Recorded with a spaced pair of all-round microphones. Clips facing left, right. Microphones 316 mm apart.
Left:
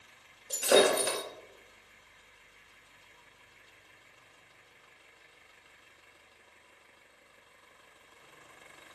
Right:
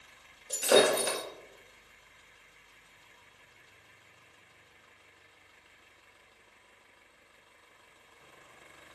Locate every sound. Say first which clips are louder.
0.5 s breaking glass: even; centre (ahead or behind), 1.6 m